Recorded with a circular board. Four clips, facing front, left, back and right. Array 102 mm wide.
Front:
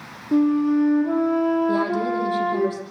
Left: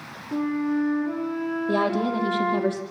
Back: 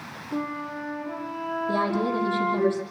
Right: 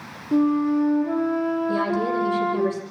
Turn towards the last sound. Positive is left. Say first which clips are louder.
# even, front 3 dB
turn(degrees=85)